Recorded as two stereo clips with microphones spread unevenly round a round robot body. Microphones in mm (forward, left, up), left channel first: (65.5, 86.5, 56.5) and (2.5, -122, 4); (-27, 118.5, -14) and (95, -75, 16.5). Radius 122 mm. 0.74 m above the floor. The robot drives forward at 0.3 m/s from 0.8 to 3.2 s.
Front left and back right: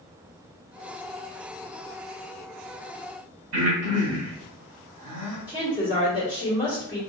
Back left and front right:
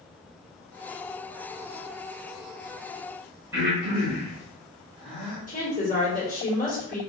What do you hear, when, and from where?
3.5 s breathing: 135° right, 1.5 m
5.5 s a woman speaking: 175° left, 1.8 m